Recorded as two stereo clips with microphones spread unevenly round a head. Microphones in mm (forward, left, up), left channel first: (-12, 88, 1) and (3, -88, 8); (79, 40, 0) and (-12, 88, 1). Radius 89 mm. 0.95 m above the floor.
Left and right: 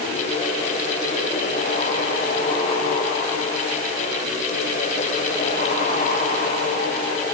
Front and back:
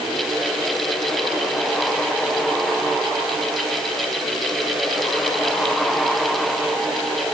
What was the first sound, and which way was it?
Only background noise.